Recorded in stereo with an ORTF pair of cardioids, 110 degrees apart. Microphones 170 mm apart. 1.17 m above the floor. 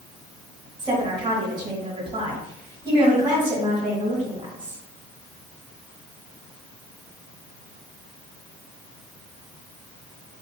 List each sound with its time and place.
0.8 s a woman speaking: 30° right, 1.8 m